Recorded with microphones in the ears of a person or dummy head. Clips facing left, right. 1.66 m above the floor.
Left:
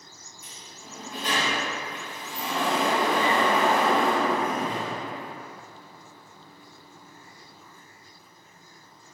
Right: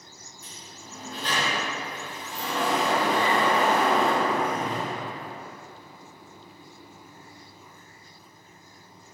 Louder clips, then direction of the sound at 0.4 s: Right 1 dB; 15° left (ahead or behind).